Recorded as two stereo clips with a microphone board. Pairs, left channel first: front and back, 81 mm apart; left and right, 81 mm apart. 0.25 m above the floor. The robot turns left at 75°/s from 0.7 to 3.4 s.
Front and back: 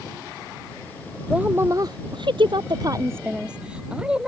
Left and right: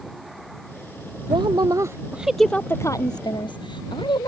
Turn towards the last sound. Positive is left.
turn(degrees=105)